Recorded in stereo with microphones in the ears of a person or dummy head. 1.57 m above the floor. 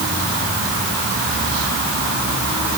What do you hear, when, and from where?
Only background noise.